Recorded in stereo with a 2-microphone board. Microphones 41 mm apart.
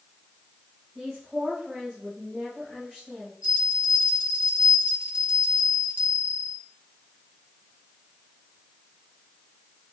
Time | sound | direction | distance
0.9 | a woman speaking | 25° right (ahead or behind) | 4.5 m
3.4 | a bell | 40° right (ahead or behind) | 2.5 m